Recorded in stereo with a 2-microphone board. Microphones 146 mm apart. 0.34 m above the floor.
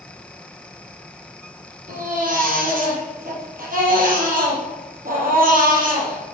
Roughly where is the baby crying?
Right.